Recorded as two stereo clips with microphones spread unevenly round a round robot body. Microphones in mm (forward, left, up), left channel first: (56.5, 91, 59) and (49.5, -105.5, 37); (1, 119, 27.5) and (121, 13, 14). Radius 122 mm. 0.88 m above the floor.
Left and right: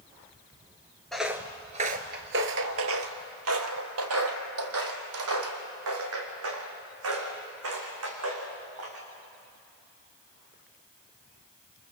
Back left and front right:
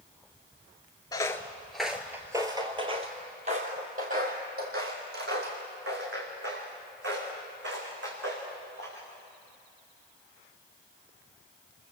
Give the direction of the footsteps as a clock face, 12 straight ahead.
7 o'clock.